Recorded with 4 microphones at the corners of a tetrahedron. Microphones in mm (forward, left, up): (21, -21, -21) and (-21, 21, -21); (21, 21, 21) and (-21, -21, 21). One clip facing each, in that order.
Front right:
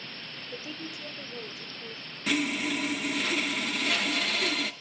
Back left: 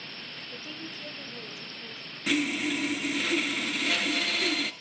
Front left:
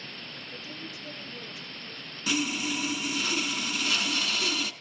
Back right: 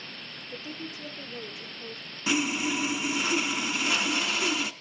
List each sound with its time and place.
0.5 s a woman speaking: 115° right, 2.5 m; by 2.2 s 135° right, 4.5 m
2.3 s sawing: 135° right, 0.7 m